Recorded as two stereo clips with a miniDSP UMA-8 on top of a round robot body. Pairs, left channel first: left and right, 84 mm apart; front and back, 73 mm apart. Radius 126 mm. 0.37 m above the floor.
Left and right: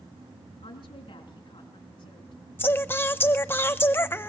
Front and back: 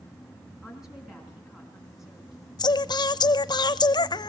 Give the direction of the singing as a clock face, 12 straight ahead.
11 o'clock.